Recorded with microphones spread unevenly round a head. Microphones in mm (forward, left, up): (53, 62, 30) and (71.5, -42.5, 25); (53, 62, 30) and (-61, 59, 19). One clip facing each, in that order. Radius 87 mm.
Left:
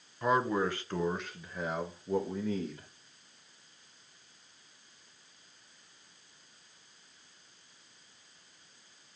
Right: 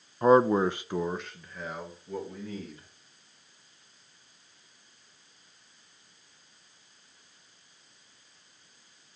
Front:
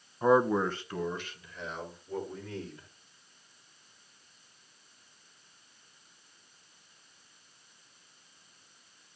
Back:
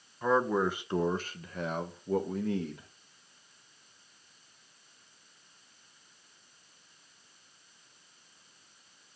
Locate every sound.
0.2 s a man speaking: 70° right, 0.5 m; by 2.9 s 165° left, 1.3 m